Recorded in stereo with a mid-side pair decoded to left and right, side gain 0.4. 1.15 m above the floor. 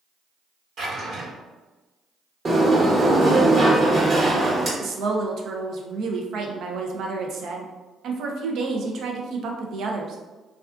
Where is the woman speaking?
70° right, 0.5 m.